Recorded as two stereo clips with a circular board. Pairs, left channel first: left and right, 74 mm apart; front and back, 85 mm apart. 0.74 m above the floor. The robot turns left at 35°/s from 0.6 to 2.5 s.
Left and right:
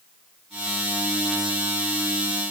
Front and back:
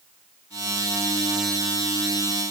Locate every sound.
Only background noise.